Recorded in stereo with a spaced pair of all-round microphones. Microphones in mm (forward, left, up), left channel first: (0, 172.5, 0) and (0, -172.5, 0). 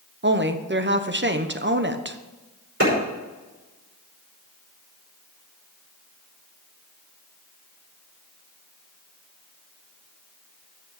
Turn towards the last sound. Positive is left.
turn(degrees=-40)  # may be behind; listen again after turning